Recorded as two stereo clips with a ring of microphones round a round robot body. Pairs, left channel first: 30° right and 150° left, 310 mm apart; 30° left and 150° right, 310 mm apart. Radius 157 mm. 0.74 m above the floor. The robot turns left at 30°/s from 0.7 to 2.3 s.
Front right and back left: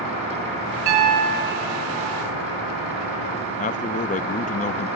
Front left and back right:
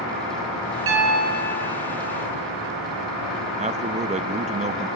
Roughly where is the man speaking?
Right.